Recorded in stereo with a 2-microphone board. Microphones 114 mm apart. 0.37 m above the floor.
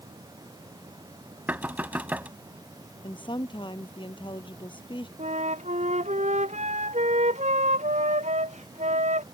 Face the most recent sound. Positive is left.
turn(degrees=-85)